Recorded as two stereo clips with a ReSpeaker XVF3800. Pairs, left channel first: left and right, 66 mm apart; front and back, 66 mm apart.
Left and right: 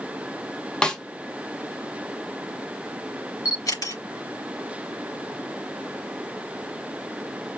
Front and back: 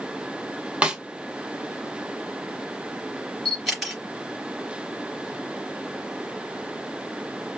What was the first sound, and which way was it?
A snare drum, 140° left.